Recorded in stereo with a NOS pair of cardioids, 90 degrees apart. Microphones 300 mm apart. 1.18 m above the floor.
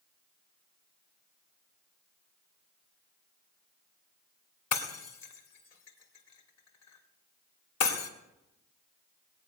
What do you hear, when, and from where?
4.7 s breaking glass: 60° left, 2.5 m